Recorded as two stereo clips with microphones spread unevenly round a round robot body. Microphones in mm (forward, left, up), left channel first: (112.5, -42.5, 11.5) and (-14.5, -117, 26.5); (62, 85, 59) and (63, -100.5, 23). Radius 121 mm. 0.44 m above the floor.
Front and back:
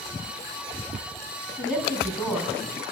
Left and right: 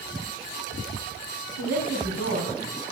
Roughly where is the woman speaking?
Ahead right.